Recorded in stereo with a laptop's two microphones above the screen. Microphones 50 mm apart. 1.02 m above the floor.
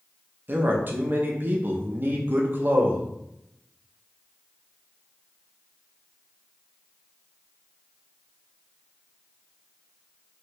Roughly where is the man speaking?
Right.